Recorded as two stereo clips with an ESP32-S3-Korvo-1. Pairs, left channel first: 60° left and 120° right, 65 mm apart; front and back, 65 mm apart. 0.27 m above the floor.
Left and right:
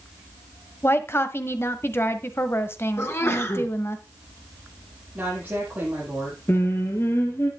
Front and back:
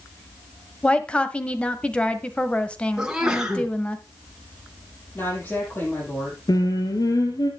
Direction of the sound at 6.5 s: 10° left.